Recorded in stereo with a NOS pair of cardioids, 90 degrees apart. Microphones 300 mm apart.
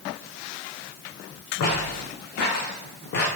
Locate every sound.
1.6 s footsteps: 65° left, 7.5 m; by 3.3 s 55° left, 7.5 m